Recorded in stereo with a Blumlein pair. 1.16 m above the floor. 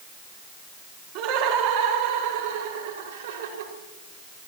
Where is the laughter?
40° right, 4.5 m; by 3.7 s 60° right, 6 m.